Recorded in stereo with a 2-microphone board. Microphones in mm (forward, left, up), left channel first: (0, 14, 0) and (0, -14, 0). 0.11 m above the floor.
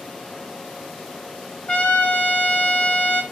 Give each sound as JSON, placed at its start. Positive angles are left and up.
{"t": 1.7, "sound": "a trumpet", "side_deg": 55, "distance_m": 2.5}